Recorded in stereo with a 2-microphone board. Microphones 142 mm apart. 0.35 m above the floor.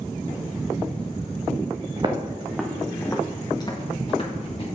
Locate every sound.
2.0 s footsteps: 35° right (ahead or behind), 1.0 m; by 4.7 s 45° left (ahead or behind), 2 m